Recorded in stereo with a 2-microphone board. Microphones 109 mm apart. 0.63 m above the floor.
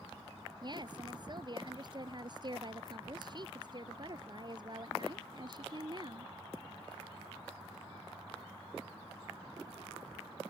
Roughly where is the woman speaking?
Right.